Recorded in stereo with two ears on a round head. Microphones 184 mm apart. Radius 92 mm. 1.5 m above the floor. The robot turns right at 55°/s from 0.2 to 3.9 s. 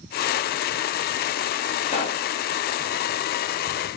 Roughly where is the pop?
Left.